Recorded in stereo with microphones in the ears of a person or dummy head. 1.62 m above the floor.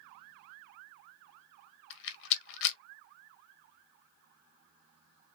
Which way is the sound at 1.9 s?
65° left (ahead or behind).